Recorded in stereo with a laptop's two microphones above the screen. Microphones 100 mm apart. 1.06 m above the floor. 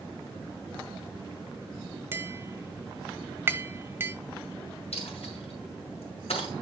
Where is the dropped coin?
80° left, 4.5 m.